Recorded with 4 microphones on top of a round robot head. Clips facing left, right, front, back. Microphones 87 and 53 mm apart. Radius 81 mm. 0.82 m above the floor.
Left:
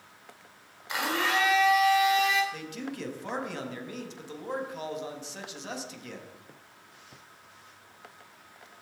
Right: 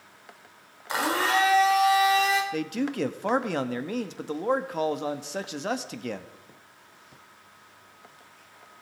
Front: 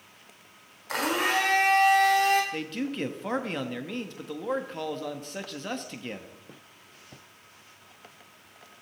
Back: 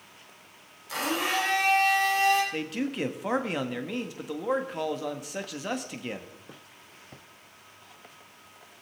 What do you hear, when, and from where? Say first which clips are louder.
0.9 s a blender: right 4 dB, front 2 dB; 40° right, 3 m
2.5 s a man speaking: right 9 dB, back 1 dB; 100° right, 1.5 m